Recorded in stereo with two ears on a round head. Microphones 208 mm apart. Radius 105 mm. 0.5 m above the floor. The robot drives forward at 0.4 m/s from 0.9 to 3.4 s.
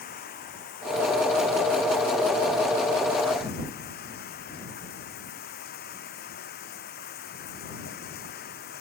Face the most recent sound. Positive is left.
turn(degrees=40)  # may be behind; listen again after turning